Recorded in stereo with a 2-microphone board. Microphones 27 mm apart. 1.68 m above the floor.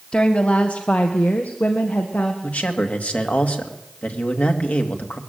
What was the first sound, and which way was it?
A woman speaking, 40° left (ahead or behind).